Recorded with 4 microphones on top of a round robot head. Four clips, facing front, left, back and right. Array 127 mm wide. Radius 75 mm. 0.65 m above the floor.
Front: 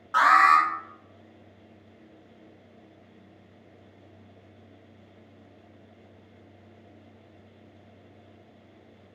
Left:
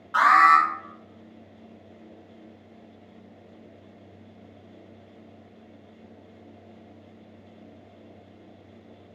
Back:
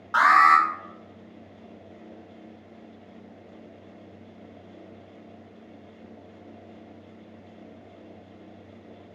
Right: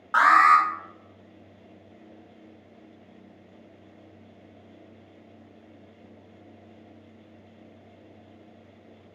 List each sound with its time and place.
0.1 s an alarm: 115° right, 1.4 m